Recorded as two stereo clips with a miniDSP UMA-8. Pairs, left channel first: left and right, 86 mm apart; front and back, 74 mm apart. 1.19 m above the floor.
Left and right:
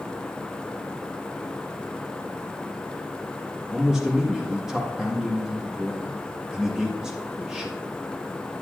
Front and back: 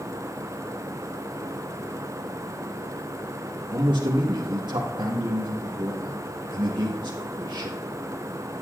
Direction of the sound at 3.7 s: 175° right.